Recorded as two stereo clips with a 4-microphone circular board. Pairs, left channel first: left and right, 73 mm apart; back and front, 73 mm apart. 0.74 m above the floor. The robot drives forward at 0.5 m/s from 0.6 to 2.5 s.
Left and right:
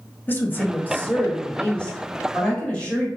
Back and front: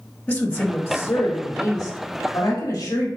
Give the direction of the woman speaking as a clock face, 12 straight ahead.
8 o'clock.